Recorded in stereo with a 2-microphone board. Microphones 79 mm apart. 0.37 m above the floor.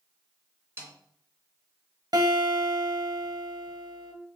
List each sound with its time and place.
0.8 s a snare drum: 35° right (ahead or behind), 3 m
2.1 s a guitar: 60° right (ahead or behind), 1.2 m